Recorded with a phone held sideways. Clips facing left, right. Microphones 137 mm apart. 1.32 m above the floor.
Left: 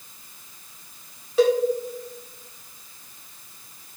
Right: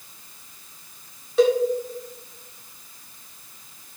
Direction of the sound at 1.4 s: Centre (ahead or behind).